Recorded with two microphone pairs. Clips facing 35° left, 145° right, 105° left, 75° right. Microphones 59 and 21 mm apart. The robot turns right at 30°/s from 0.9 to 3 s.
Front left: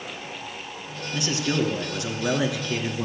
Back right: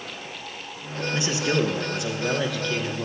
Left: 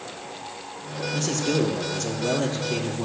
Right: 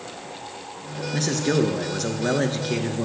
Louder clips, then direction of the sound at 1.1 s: Back right 1 dB, right 2 dB; 85° right.